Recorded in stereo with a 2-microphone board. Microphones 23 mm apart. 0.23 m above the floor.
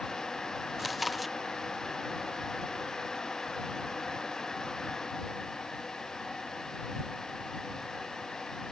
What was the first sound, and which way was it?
Chewing, centre (ahead or behind).